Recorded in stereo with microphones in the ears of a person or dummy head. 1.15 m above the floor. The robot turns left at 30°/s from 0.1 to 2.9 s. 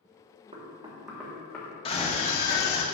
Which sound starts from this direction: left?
A scream, at 1.9 s.